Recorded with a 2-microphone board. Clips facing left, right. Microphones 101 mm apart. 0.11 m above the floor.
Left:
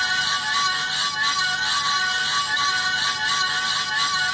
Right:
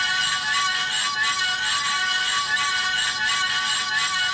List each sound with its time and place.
Only background noise.